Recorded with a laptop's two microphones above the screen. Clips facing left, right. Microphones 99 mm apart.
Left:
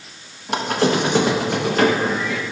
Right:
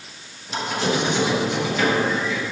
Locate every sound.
0.5 s a squeak: 65° left (ahead or behind), 0.7 m